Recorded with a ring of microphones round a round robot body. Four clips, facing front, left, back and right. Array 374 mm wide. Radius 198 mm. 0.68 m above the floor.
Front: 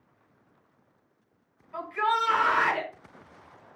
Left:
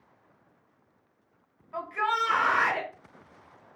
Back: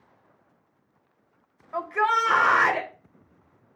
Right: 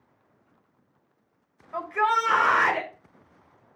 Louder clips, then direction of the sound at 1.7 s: Right 5 dB, back 3 dB; 155° right.